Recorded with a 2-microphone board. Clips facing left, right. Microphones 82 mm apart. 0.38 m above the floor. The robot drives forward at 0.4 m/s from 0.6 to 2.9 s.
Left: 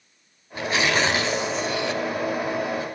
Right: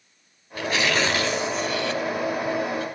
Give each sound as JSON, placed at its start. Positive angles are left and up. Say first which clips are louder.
{"t": 0.6, "sound": "tearing paper", "louder": "left 1 dB", "side_deg": 20, "distance_m": 1.3}